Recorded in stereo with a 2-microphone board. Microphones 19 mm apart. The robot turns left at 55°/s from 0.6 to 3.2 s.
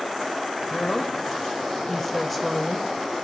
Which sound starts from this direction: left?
A woman speaking, at 0.7 s.